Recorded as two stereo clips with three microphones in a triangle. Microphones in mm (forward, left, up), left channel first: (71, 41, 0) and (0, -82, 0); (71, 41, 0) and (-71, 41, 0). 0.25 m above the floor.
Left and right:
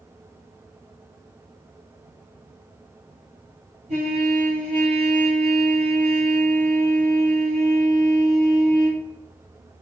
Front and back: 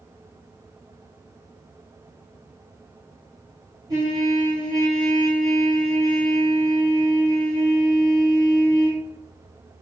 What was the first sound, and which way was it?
A trumpet, 120° right.